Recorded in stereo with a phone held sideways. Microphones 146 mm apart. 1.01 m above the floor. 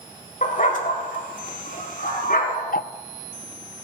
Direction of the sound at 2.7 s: 75° left (ahead or behind).